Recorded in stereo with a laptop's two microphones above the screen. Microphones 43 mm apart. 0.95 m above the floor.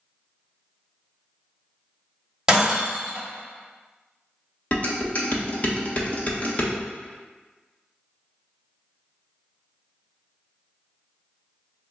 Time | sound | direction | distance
2.5 | breaking glass | 15° right (ahead or behind) | 1.4 m
4.7 | dishes clattering | 40° left (ahead or behind) | 1.0 m